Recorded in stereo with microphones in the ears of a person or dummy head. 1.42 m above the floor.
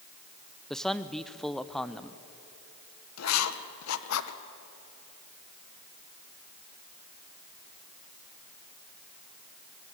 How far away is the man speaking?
About 0.6 m.